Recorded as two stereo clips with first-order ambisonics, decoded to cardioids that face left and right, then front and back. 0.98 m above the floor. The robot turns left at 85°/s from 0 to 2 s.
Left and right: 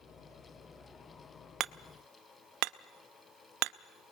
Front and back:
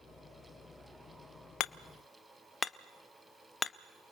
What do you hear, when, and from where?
1.6 s hammering: 35° right, 0.5 m; by 4.1 s 70° right, 0.5 m